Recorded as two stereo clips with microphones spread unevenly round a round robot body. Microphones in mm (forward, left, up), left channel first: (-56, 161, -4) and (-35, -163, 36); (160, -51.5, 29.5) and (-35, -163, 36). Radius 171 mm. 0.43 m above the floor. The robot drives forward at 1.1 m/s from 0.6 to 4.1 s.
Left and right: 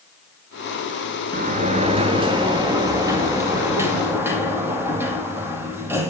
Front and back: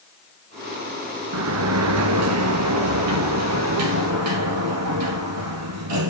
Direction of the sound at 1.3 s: 150° right.